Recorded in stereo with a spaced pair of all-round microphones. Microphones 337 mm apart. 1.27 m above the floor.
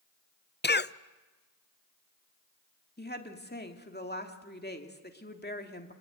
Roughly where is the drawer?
No drawer in this recording.